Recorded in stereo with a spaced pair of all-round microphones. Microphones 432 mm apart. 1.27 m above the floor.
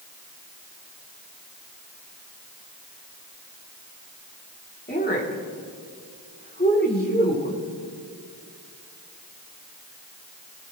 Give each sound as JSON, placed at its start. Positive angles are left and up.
{"t": 4.9, "sound": "a woman speaking", "side_deg": 20, "distance_m": 3.0}